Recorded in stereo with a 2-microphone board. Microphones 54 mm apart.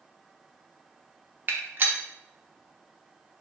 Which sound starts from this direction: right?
A gunshot, at 1.5 s.